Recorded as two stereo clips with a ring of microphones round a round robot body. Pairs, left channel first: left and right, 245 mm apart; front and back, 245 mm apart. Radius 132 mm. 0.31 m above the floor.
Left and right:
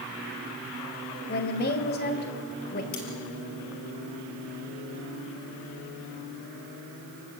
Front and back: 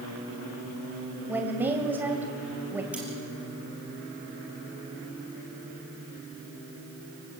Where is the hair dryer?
No hair dryer in this recording.